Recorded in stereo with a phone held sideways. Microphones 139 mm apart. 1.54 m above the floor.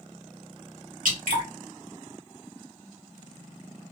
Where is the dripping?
75° right (ahead or behind), 1.5 m.